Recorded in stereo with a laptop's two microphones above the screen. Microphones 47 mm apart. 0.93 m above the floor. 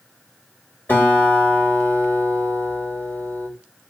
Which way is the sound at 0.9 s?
45° left (ahead or behind).